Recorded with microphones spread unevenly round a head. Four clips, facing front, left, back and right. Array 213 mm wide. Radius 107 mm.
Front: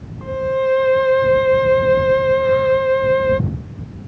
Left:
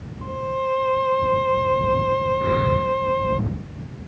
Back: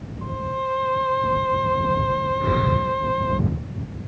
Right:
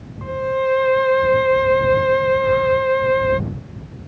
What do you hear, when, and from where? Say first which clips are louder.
0.2 s a violin: right 5 dB, front 8 dB; 25° right
2.4 s breathing: right 4 dB, front 7 dB; 140° left